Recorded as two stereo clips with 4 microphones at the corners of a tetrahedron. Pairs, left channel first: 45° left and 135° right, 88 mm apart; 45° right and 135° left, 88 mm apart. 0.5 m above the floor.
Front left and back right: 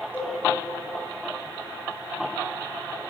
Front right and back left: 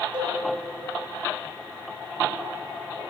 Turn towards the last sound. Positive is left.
turn(degrees=115)